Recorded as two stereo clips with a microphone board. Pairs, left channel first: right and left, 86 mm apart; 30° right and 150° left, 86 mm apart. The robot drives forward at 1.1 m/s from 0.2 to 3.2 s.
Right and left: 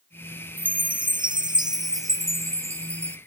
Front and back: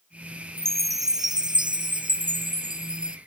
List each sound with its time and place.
0.6 s a chime: 90° left; by 3.2 s 150° left